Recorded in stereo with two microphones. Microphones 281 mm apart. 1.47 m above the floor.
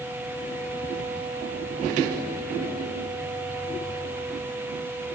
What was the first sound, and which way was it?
Only background noise.